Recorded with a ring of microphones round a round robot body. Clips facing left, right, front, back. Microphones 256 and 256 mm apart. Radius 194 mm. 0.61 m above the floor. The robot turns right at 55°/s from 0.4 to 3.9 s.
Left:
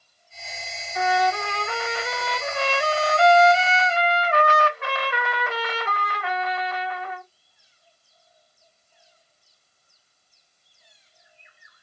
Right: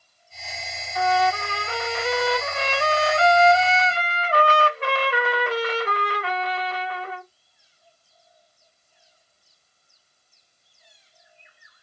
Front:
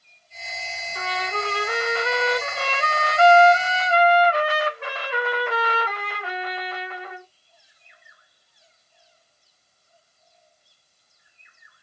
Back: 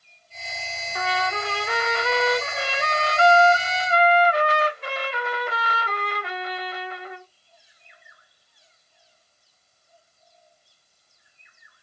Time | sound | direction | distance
0.9 | a trumpet | 165° left | 3 m